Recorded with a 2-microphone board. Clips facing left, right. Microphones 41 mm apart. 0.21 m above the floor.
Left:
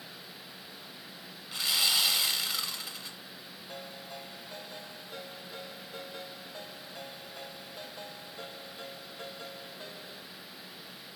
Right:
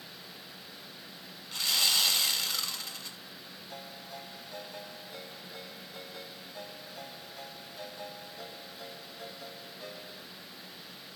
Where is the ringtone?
65° left (ahead or behind), 5 m.